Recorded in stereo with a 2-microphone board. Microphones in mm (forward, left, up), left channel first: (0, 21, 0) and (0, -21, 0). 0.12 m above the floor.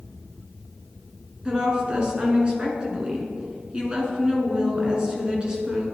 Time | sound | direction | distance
1.4 | a woman speaking | 25° right (ahead or behind) | 1.4 m